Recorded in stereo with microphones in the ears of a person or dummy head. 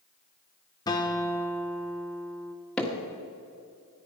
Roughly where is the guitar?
Centre.